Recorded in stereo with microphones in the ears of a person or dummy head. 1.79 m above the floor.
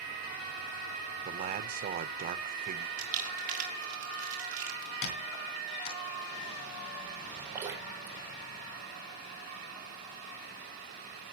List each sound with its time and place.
1.2 s a man speaking: 40° right (ahead or behind), 1.0 m
3.0 s crumpling: 40° right (ahead or behind), 4 m
5.0 s a squeak: 55° left (ahead or behind), 3.5 m
7.5 s dripping: 10° right (ahead or behind), 4.5 m